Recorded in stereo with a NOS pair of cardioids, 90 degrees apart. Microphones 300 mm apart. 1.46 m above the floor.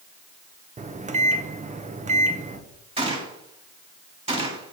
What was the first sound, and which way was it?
A microwave, 25° right.